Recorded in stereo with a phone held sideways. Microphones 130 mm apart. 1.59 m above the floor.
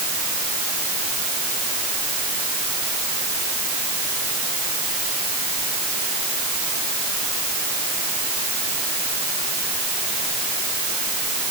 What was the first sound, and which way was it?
Only background noise.